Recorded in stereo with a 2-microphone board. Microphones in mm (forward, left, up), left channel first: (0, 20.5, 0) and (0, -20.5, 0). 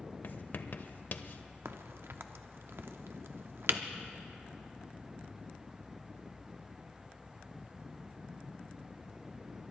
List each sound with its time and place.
0.2 s writing: 50° left (ahead or behind), 0.6 m
1.6 s a crack: 75° right (ahead or behind), 0.7 m